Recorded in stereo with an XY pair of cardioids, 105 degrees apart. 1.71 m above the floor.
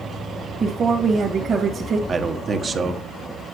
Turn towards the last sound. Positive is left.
turn(degrees=-40)